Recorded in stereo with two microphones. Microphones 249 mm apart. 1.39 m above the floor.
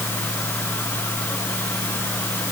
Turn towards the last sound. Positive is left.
No sound to turn to.